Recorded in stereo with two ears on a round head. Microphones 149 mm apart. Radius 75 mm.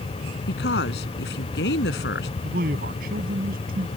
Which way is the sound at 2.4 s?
55° right (ahead or behind).